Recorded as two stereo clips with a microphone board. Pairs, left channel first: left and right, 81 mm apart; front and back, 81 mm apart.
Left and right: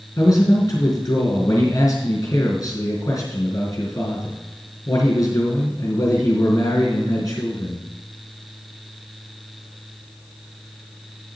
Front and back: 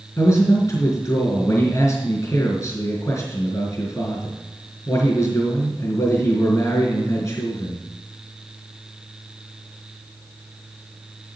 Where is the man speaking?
45° left, 4 m.